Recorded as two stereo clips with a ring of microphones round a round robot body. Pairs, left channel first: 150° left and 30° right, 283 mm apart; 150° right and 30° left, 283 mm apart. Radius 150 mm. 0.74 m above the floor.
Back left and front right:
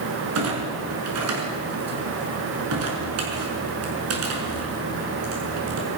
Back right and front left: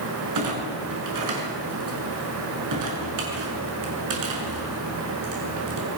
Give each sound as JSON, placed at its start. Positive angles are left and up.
{"t": 0.3, "sound": "a clunk", "azimuth_deg": 10, "distance_m": 6.5}